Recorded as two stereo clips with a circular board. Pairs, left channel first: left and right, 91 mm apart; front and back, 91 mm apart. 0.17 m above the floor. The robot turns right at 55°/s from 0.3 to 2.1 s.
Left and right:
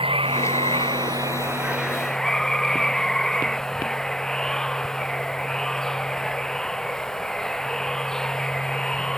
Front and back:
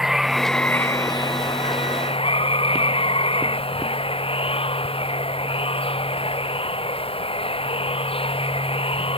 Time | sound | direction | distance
0.0 | running water | 95° right | ?